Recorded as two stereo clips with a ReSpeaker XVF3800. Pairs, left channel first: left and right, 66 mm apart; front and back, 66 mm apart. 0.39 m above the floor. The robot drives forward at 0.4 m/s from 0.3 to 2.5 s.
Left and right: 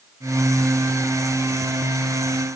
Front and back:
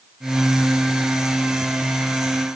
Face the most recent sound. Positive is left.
No sound to turn to.